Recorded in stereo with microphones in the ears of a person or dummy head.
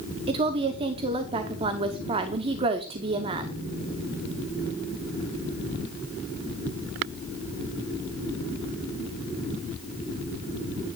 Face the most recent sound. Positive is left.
turn(degrees=-25)  # may be behind; listen again after turning